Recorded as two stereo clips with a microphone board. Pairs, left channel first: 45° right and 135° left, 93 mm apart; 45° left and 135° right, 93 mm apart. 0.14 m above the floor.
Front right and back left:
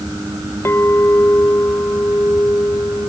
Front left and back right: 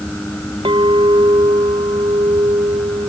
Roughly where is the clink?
Right.